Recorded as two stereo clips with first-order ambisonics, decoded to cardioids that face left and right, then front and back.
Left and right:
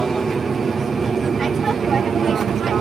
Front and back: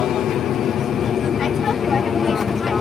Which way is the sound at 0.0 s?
20° right.